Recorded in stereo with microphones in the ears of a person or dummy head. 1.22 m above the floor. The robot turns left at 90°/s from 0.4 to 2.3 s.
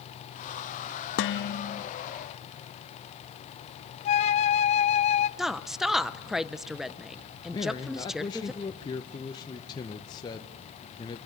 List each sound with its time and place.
1.2 s dishes clattering: 85° left, 0.9 m; by 1.8 s 25° left, 0.9 m
4.0 s a flute: 40° left (ahead or behind), 0.5 m
5.4 s a woman speaking: centre (ahead or behind), 0.7 m
7.5 s a man speaking: 20° left (ahead or behind), 0.9 m